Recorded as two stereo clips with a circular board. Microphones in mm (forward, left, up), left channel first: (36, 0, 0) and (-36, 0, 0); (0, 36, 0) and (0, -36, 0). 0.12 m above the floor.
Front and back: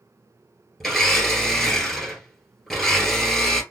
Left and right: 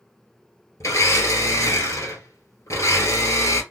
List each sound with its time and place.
0.8 s a blender: 80° left, 1.8 m